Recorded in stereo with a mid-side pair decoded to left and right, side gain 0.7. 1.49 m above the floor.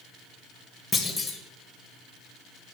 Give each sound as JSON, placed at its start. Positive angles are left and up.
{"t": 0.9, "sound": "a clunk", "azimuth_deg": 5, "distance_m": 1.9}